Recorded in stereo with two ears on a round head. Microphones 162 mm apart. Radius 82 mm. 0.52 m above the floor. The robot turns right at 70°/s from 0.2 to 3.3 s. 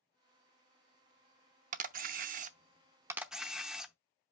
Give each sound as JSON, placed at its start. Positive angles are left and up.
{"t": 1.7, "sound": "a camera shutter", "azimuth_deg": -115, "distance_m": 0.6}